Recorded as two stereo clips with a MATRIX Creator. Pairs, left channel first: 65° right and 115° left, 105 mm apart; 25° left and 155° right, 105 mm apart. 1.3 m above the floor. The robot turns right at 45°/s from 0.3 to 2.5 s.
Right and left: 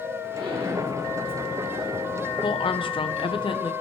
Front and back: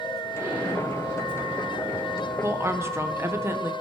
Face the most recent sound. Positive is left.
turn(degrees=-95)